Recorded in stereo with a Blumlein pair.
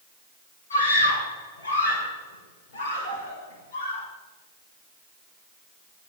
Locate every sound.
0.7 s a scream: 70° left, 8 m; by 4.1 s 50° left, 8 m